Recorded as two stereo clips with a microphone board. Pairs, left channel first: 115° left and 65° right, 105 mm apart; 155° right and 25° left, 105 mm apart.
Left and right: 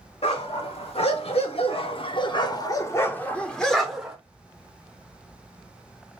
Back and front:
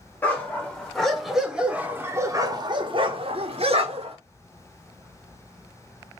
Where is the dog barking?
125° left, 1.4 m; by 4.2 s 20° left, 1.1 m.